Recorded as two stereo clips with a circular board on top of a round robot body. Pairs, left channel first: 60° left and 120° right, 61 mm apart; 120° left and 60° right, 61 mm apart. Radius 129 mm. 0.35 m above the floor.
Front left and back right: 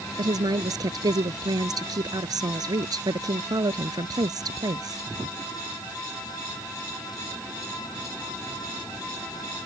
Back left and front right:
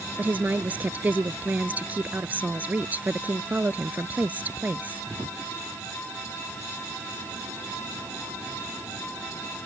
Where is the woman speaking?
125° right.